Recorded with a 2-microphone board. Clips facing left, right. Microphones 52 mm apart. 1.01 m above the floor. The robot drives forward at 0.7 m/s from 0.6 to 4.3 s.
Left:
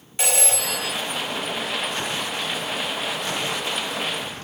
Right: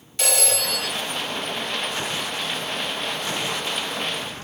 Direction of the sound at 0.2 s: 15° left (ahead or behind).